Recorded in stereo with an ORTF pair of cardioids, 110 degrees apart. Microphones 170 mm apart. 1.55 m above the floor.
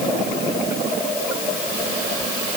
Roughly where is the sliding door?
I don't hear a sliding door.